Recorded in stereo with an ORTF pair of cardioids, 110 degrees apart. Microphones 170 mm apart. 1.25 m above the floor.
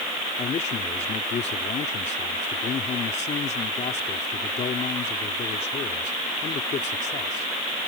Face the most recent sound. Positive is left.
turn(degrees=45)